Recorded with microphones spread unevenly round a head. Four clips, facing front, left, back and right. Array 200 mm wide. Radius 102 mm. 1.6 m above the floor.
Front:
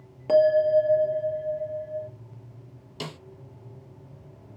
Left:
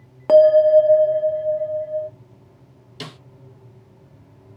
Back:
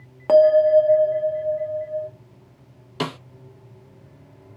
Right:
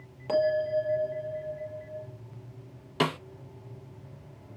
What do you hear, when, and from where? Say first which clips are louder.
0.3 s a bell: left 15 dB, back 6 dB; 100° left, 0.9 m
3.0 s a snare drum: right 10 dB, back 10 dB; 135° right, 0.7 m